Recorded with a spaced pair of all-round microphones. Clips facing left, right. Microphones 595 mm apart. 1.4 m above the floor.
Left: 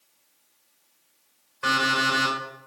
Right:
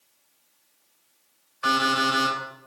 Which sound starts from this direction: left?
An alarm clock, at 1.6 s.